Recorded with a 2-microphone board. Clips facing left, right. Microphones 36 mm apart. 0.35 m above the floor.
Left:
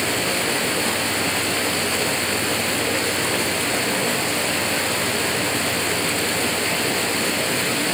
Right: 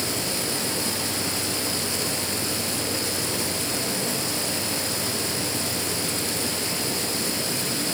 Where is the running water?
45° left (ahead or behind), 3 m.